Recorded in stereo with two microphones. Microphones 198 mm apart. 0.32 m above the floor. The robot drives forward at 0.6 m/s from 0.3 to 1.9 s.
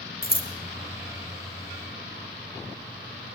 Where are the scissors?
50° left (ahead or behind), 2.5 m.